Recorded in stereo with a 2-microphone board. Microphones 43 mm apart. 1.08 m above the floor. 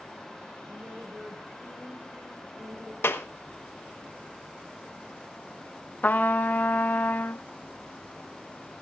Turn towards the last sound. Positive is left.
turn(degrees=40)  # may be behind; listen again after turning